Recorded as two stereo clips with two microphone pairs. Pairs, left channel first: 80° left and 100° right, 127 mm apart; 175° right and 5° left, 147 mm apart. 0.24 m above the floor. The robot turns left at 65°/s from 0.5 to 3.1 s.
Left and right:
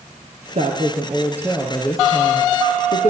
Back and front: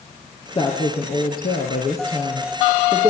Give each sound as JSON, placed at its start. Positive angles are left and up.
{"t": 0.6, "sound": "a woman speaking", "azimuth_deg": -120, "distance_m": 4.5}